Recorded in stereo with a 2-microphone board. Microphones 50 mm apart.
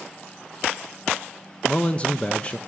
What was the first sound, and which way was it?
A man speaking, 20° left (ahead or behind).